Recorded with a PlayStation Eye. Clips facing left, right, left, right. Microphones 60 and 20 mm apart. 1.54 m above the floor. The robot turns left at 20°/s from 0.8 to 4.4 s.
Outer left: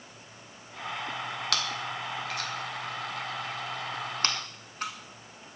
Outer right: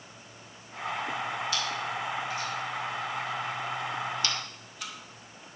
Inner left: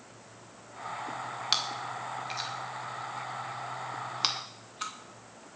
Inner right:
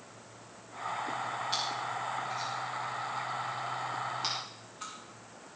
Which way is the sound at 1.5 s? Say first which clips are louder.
Outer right 1 dB, inner left 6 dB; 80° left.